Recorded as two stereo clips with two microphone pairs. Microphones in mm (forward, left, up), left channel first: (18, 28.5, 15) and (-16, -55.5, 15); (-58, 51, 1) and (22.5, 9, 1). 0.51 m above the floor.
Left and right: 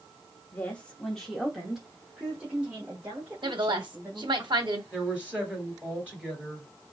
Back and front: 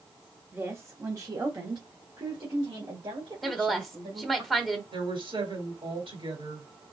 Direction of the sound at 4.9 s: 35° right.